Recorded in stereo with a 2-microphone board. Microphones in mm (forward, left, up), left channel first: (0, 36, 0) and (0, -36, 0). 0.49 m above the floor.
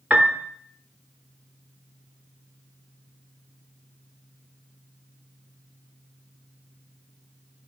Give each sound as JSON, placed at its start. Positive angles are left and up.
{"t": 0.1, "sound": "a piano", "side_deg": -15, "distance_m": 0.9}